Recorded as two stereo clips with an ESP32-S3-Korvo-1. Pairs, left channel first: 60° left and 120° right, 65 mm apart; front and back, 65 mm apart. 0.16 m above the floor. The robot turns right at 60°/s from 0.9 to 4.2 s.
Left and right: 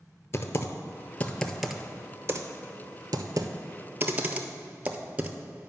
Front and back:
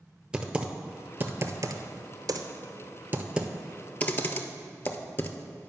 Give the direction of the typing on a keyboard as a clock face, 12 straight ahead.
8 o'clock.